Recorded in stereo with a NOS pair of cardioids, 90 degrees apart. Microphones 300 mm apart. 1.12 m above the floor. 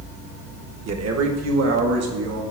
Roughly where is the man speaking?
Ahead right.